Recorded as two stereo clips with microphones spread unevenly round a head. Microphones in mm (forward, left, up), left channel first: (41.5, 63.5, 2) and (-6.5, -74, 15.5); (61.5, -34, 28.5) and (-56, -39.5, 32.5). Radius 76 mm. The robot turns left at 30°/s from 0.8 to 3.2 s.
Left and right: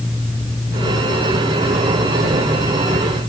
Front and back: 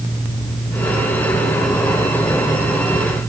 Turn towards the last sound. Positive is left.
No sound to turn to.